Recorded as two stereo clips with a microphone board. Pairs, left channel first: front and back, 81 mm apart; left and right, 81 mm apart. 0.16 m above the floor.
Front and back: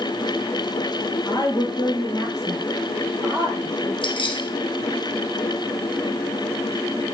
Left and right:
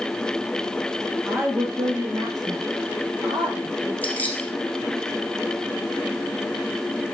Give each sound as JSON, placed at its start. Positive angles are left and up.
{"t": 1.3, "sound": "a woman speaking", "azimuth_deg": -25, "distance_m": 2.5}
{"t": 4.0, "sound": "keys jangling", "azimuth_deg": 20, "distance_m": 4.0}